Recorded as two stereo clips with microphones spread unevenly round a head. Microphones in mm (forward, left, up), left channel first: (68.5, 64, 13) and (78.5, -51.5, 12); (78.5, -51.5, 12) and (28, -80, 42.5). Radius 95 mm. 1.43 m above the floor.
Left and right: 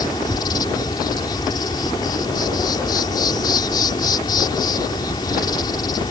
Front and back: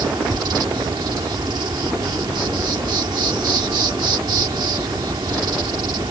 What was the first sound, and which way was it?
An insect, 165° left.